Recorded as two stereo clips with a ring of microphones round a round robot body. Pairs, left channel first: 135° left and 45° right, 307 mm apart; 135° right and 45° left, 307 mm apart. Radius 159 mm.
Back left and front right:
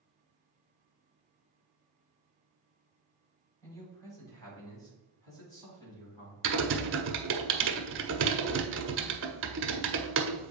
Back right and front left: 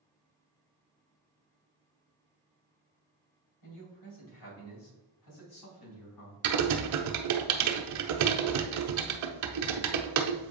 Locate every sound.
3.6 s a man speaking: 145° right, 3 m; by 6.5 s 150° right, 5 m
6.4 s typing on a keyboard: 10° left, 1.0 m